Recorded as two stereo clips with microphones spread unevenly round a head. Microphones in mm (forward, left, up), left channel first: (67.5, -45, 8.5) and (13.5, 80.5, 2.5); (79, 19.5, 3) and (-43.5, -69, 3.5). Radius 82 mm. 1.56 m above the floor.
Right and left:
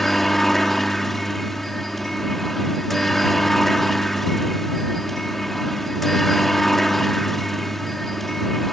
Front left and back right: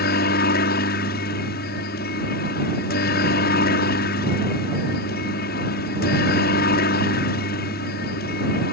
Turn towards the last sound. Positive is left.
turn(degrees=20)